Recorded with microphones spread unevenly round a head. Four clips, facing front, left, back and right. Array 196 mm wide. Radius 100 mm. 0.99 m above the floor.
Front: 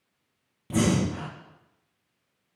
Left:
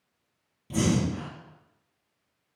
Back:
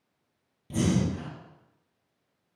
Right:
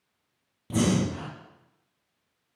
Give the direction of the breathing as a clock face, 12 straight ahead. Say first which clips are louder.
Right 1 dB, front 2 dB; 1 o'clock.